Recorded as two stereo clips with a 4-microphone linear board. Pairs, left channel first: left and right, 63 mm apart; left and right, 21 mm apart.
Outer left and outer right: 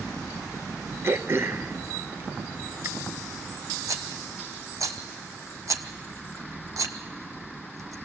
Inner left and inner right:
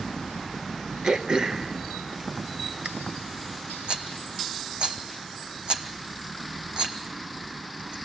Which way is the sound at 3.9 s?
60° right (ahead or behind).